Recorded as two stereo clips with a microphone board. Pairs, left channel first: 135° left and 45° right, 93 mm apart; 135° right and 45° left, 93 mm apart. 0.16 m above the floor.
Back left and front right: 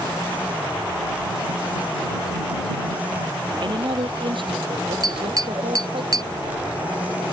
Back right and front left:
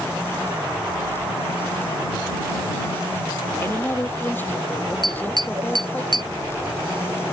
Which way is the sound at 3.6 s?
70° right.